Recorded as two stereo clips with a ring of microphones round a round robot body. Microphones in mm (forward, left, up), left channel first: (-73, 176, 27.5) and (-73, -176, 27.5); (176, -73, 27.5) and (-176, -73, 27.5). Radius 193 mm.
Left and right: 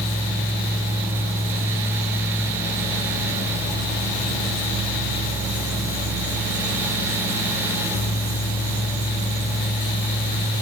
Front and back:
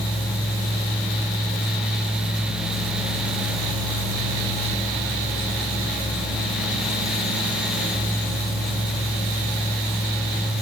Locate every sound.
Only background noise.